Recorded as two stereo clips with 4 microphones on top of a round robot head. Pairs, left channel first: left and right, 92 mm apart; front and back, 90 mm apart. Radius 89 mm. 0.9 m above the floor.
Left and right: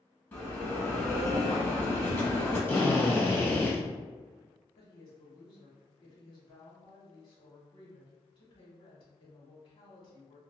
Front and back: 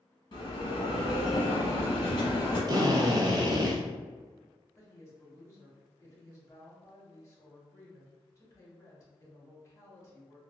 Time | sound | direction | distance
0.3 | a bell | 30° left | 1.0 m
2.7 | a drill | 150° left | 0.9 m
4.8 | a woman speaking | 65° left | 1.9 m